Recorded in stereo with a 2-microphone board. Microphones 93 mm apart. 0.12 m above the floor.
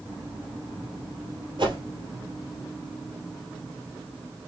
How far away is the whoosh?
About 2 m.